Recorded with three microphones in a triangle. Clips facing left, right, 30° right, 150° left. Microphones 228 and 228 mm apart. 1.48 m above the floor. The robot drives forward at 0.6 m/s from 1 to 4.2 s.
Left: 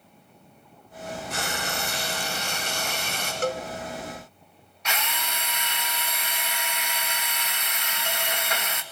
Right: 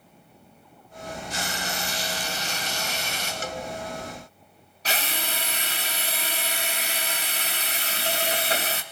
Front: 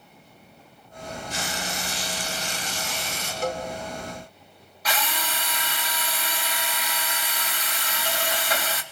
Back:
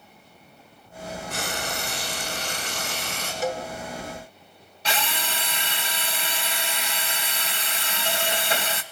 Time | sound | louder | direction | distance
1.3 | frying | left 1 dB, back 2 dB | 120° left | 7.5 m
3.4 | a cowbell | left 8 dB, back 1 dB | 65° left | 2.5 m
4.8 | a drill | right 2 dB, even | 145° right | 2 m